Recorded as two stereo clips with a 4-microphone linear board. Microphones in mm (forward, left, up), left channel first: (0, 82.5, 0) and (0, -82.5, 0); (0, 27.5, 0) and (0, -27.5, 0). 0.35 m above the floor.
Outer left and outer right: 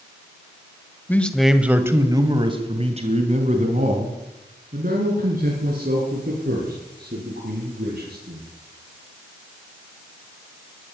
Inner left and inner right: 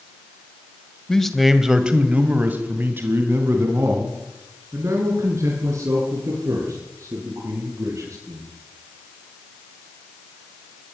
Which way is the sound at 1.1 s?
10° left (ahead or behind).